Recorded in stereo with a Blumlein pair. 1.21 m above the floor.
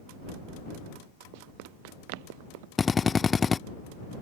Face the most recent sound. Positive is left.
turn(degrees=15)